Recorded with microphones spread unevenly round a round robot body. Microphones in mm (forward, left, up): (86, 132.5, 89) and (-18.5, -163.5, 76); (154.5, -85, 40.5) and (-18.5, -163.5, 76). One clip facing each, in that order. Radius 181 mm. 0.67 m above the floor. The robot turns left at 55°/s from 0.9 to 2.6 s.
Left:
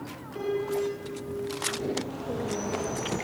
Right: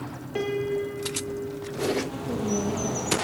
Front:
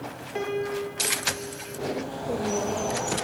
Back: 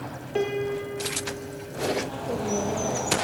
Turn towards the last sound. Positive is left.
turn(degrees=-75)